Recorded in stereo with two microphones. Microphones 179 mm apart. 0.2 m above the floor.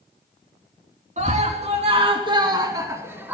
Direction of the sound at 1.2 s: 45° right (ahead or behind).